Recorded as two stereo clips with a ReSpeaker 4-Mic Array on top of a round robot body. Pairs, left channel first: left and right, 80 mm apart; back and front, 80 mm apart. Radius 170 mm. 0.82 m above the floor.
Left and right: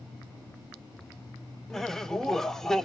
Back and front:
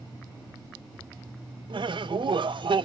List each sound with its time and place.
1.7 s laughter: 5° left, 0.8 m